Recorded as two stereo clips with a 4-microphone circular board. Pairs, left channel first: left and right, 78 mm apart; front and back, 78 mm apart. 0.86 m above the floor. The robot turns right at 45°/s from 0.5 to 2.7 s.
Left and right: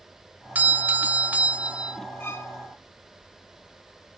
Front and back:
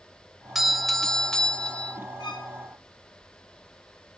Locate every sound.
0.6 s a doorbell: 100° right, 0.8 m; by 2.0 s 35° right, 0.8 m
2.2 s a violin: 30° left, 2.5 m; by 2.5 s 45° left, 2.5 m